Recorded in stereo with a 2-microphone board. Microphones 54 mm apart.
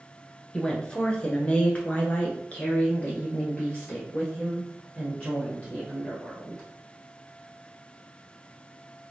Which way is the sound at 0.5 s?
15° left (ahead or behind).